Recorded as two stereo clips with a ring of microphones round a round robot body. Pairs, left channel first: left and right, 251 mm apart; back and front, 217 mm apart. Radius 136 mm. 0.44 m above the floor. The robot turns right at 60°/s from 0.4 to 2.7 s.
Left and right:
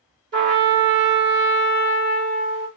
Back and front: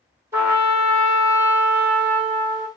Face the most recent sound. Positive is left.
turn(degrees=65)